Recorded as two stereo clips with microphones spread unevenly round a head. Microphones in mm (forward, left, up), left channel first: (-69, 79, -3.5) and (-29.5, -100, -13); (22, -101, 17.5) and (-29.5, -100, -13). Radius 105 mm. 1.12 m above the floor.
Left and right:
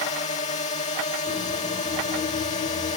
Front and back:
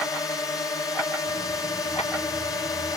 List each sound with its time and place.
0.0 s a drone: 55° left